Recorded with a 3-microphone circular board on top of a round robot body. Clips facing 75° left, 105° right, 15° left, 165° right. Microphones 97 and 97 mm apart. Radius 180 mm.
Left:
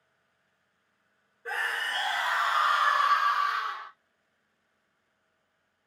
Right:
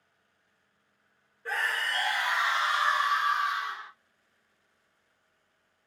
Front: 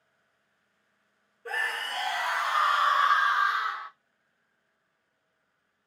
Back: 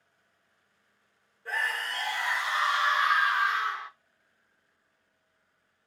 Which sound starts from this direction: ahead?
A scream, at 1.4 s.